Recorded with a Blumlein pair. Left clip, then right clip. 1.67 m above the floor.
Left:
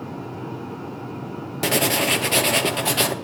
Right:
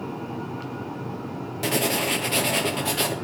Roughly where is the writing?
Ahead.